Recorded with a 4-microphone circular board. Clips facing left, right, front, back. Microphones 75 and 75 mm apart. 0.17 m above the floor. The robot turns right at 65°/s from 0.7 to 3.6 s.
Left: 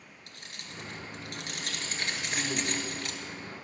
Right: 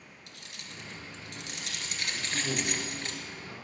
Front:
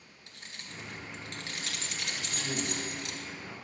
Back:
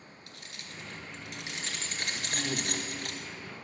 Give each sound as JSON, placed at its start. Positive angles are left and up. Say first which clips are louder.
{"t": 0.3, "sound": "keys jangling", "louder": "left 2 dB, front 2 dB", "azimuth_deg": 60, "distance_m": 1.8}
{"t": 2.1, "sound": "a man speaking", "louder": "right 2 dB, back 1 dB", "azimuth_deg": -130, "distance_m": 6.0}